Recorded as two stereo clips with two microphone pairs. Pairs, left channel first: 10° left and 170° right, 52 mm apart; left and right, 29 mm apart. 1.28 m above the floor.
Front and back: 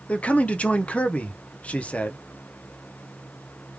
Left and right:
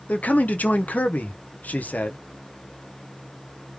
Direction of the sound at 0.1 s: 75° left.